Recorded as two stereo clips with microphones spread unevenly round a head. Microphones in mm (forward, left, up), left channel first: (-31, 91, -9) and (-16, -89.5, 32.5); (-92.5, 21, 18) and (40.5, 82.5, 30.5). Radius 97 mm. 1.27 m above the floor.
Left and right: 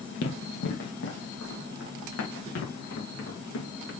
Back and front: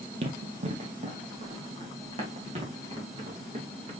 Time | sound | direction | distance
0.2 | running footsteps | 55° left | 2.5 m